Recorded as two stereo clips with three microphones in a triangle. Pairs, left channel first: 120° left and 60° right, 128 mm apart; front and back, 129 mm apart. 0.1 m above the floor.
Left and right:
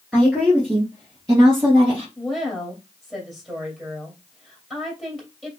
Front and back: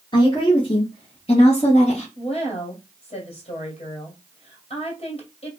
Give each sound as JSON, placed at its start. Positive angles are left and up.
{"t": 0.1, "sound": "a woman speaking", "azimuth_deg": 30, "distance_m": 2.0}
{"t": 2.2, "sound": "a woman speaking", "azimuth_deg": 25, "distance_m": 2.5}